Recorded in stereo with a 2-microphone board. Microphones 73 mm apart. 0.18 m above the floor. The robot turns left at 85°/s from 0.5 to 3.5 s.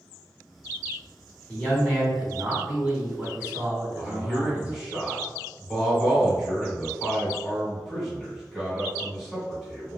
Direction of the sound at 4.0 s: 5° right (ahead or behind).